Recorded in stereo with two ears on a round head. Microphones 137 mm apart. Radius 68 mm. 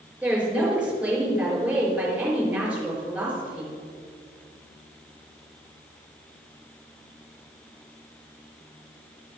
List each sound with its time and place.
0.2 s a woman speaking: 10° right (ahead or behind), 4 m